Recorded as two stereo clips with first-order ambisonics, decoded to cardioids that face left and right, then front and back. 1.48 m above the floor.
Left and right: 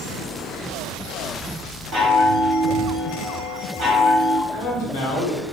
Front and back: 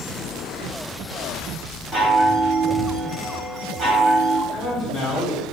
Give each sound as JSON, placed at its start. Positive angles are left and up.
{"t": 1.9, "sound": "a chime", "azimuth_deg": -125, "distance_m": 0.9}
{"t": 4.5, "sound": "a man speaking", "azimuth_deg": 65, "distance_m": 0.9}